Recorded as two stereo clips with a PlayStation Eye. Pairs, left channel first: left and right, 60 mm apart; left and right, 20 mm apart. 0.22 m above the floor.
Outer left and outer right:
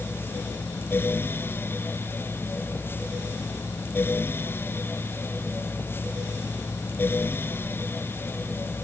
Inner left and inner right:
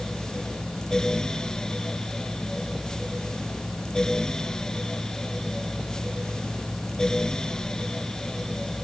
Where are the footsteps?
I don't hear footsteps.